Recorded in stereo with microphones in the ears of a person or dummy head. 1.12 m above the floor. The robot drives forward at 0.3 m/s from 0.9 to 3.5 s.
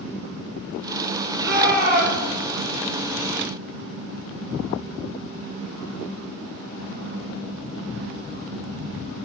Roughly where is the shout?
Right.